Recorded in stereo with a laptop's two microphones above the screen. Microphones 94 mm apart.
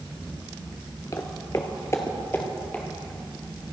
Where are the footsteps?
35° left (ahead or behind), 1.2 m; by 2.9 s 20° left (ahead or behind), 2 m.